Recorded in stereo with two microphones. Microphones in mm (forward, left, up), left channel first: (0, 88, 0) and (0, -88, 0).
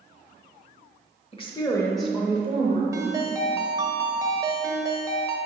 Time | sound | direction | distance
1.3 | a woman speaking | 35° left (ahead or behind) | 1.1 m
2.9 | a ringtone | 20° right (ahead or behind) | 0.7 m